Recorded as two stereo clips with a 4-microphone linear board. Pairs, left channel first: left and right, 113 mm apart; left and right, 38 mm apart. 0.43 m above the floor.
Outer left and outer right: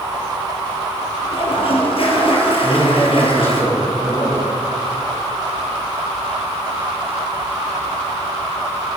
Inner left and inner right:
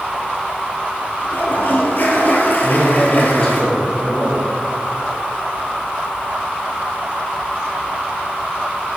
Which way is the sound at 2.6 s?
20° left (ahead or behind).